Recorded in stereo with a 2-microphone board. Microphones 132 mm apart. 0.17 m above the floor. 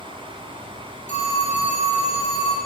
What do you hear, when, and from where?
0.0 s an insect: 55° right (ahead or behind), 2 m
1.1 s a phone ringing: 65° left (ahead or behind), 3 m